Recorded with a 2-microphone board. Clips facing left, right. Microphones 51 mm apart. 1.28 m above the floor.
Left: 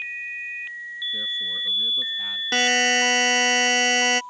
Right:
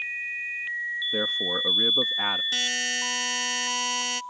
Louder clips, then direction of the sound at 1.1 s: Right 1 dB; 65° right (ahead or behind).